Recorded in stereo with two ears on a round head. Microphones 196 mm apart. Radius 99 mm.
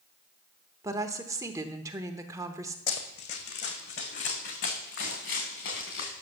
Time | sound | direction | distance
0.8 | a woman speaking | 15° right (ahead or behind) | 0.9 m
2.9 | running footsteps | 45° left (ahead or behind) | 1.7 m